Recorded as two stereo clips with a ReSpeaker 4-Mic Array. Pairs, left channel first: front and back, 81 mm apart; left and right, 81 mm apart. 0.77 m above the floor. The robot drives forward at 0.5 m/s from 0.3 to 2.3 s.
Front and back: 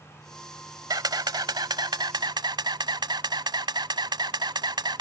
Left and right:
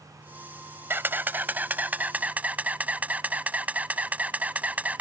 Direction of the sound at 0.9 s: 150° right.